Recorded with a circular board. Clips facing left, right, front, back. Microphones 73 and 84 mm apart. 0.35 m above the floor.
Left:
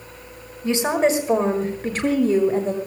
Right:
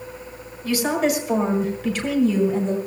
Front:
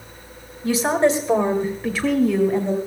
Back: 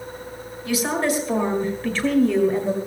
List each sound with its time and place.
0.6 s a woman speaking: 35° left, 1.6 m; by 2.8 s 100° left, 1.7 m